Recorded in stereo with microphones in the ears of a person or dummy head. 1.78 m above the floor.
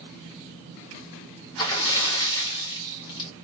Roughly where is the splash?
Left.